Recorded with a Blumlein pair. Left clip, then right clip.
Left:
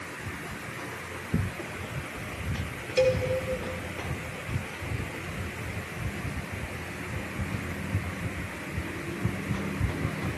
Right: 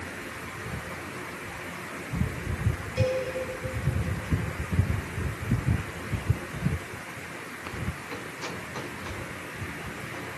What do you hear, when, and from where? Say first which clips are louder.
3.0 s a cowbell: left 4 dB; 25° left, 3.5 m